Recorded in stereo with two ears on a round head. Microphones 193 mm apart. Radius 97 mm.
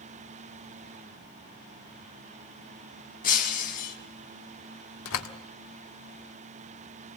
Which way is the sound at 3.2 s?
40° left (ahead or behind).